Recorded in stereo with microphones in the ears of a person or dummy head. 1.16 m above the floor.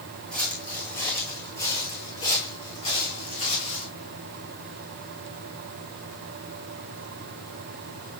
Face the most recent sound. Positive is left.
turn(degrees=40)  # may be behind; listen again after turning